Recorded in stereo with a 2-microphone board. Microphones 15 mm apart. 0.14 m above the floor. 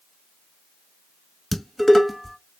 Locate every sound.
1.5 s dishes clattering: centre (ahead or behind), 0.9 m